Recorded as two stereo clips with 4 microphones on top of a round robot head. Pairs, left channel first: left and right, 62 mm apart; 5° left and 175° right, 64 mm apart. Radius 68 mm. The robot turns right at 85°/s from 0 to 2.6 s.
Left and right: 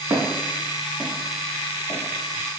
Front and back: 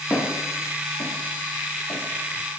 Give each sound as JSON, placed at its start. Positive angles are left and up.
{"t": 0.1, "sound": "footsteps", "azimuth_deg": -65, "distance_m": 3.5}